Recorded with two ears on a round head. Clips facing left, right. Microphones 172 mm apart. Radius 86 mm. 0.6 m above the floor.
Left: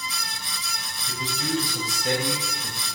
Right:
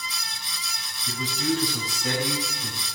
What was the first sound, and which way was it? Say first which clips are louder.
A man speaking: right 3 dB; 50° right (ahead or behind).